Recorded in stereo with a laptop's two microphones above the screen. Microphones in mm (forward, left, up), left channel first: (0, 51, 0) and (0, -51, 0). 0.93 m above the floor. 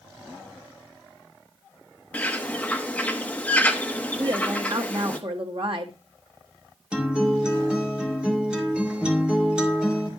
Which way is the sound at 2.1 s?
10° left (ahead or behind).